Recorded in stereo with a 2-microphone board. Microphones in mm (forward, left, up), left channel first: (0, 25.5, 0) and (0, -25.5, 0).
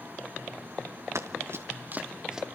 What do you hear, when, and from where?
1.1 s running footsteps: 70° right (ahead or behind), 2 m; by 2.5 s 10° right (ahead or behind), 1.8 m